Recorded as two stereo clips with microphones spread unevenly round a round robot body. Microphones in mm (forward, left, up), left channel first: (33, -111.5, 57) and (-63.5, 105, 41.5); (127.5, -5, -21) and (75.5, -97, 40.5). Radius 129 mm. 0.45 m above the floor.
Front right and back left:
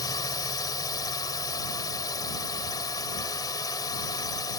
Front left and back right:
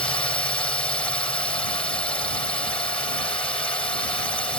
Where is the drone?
10° left.